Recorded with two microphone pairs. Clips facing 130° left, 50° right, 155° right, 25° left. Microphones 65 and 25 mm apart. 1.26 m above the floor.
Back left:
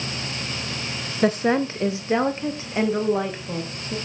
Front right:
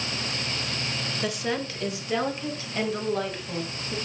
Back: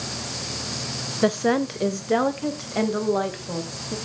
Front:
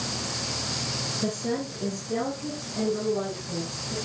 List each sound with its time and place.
1.2 s a woman speaking: 175° right, 0.6 m; by 4.0 s 155° right, 2 m